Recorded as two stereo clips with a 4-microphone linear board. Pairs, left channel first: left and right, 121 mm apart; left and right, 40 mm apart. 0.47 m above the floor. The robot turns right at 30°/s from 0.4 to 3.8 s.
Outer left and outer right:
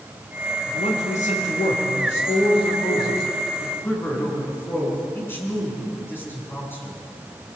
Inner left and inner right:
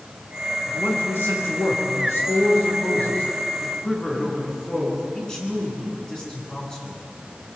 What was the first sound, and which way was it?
A man speaking, 65° left.